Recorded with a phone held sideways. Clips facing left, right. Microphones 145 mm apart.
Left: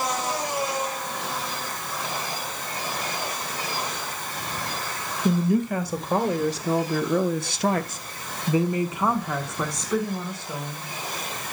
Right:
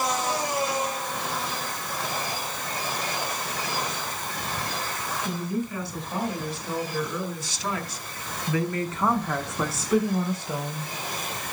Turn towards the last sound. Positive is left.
turn(degrees=-20)  # may be behind; listen again after turning